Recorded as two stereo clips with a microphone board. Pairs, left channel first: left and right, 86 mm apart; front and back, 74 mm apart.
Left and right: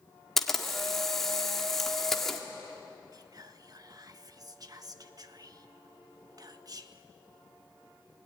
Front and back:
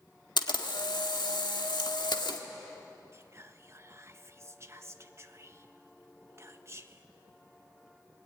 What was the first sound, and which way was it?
A camera shutter, 5° left.